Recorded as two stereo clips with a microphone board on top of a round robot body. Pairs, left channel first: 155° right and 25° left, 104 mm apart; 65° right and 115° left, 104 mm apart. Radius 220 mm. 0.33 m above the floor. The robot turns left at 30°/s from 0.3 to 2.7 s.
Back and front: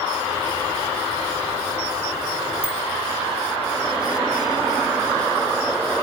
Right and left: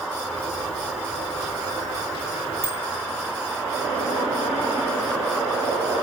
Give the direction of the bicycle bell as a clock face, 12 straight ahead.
10 o'clock.